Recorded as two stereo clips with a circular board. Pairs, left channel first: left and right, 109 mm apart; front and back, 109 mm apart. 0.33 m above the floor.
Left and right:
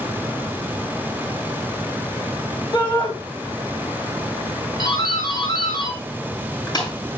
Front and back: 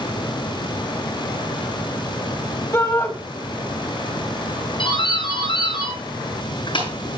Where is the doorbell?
40° left, 7.5 m.